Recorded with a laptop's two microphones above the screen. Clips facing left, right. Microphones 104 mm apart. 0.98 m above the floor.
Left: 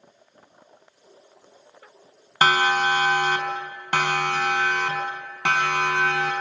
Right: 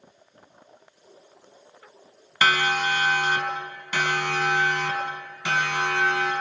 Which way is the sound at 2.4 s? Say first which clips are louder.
Left 3 dB; 40° left (ahead or behind).